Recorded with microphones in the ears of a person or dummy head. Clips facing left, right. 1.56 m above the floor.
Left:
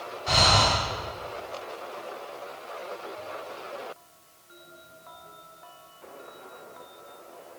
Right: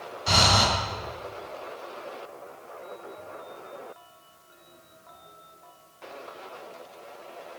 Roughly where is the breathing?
Right.